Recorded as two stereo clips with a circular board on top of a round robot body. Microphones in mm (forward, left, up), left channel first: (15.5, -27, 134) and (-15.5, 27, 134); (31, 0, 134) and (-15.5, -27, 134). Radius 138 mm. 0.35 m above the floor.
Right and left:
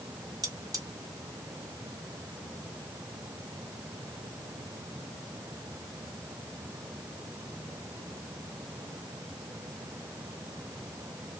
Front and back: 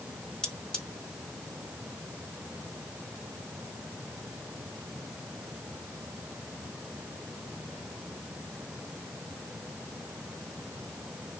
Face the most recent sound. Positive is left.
turn(degrees=105)